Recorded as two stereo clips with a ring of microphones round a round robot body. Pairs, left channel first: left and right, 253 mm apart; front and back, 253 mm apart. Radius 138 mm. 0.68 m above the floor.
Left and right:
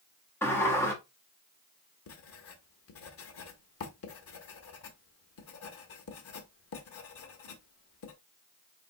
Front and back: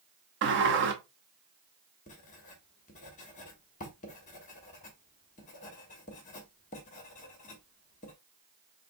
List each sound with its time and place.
0.4 s a sliding door: 170° left, 0.7 m
2.1 s writing: 60° left, 1.0 m